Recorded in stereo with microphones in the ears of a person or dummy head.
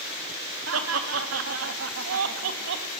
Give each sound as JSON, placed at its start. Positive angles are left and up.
{"t": 0.7, "sound": "laughter", "side_deg": -80, "distance_m": 3.0}